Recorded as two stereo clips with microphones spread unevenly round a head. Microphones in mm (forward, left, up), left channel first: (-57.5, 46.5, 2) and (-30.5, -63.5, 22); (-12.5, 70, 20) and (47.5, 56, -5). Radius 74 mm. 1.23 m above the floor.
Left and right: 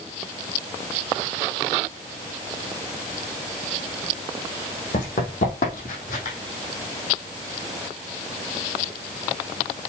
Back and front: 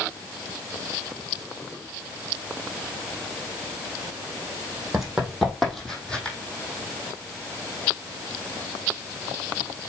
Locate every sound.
4.9 s running footsteps: 80° left, 3 m; by 6.4 s 105° left, 3 m